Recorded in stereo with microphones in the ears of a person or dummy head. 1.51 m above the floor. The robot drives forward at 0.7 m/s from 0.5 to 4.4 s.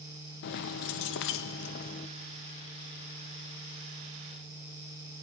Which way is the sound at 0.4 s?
65° left (ahead or behind).